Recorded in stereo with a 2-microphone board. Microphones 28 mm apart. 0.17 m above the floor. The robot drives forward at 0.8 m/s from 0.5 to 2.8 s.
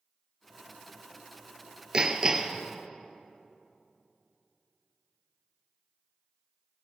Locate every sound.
1.9 s hammering: 25° right (ahead or behind), 0.9 m; by 2.6 s 15° right (ahead or behind), 1.4 m